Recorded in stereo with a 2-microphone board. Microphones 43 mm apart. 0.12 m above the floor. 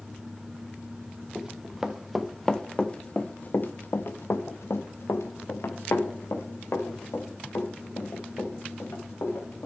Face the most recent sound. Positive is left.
turn(degrees=70)  # may be behind; listen again after turning